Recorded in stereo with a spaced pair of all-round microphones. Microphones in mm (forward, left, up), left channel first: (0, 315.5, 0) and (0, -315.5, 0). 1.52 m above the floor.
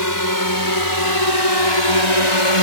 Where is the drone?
30° left (ahead or behind); by 2.6 s 55° left (ahead or behind).